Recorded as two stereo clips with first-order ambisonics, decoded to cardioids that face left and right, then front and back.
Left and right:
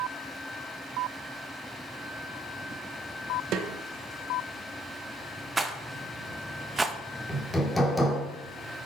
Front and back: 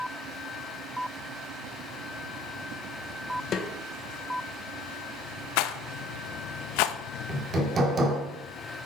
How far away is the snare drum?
About 0.8 m.